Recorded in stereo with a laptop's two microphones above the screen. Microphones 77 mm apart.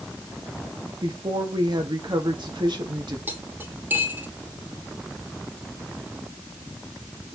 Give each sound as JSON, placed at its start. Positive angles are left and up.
{"t": 1.0, "sound": "a woman speaking", "side_deg": -75, "distance_m": 1.9}
{"t": 3.3, "sound": "cutlery clinking", "side_deg": -25, "distance_m": 1.2}